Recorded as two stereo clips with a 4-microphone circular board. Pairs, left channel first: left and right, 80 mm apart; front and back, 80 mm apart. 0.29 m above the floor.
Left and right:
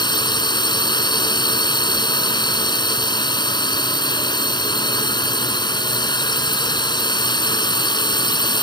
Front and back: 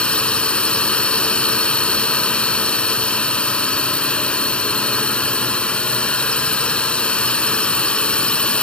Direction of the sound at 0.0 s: 75° left.